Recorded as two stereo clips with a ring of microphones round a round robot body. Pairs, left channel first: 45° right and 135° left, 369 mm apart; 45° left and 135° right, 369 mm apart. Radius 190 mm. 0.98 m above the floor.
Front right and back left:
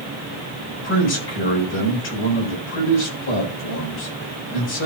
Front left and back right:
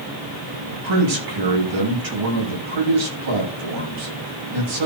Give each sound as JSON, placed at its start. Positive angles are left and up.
{"t": 0.7, "sound": "a man speaking", "azimuth_deg": -105, "distance_m": 7.0}